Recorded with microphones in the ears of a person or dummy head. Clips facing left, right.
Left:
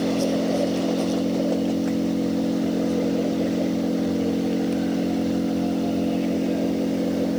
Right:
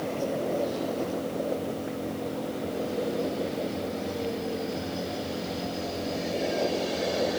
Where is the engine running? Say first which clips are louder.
Left 8 dB; 60° left (ahead or behind).